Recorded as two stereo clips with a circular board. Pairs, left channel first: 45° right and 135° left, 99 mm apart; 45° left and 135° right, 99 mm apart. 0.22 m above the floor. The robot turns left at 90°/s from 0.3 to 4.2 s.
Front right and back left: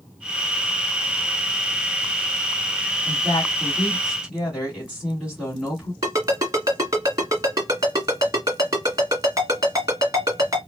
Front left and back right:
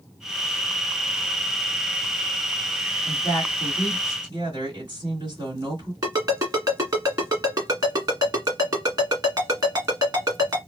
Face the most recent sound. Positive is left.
turn(degrees=180)